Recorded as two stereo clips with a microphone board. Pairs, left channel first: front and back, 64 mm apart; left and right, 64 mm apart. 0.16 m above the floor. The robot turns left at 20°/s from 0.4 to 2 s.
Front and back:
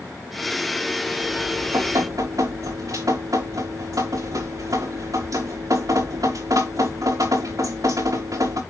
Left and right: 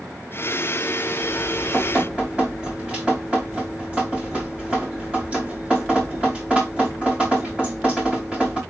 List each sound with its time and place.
1.2 s dripping: 145° right, 6 m; by 8.6 s 160° right, 6 m